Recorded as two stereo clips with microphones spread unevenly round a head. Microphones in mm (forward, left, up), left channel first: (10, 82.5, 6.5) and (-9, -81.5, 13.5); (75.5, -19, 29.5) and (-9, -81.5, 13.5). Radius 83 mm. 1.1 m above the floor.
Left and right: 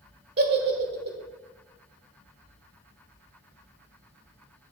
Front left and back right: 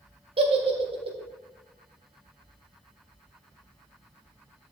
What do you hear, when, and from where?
0.4 s a giggle: 120° right, 1.6 m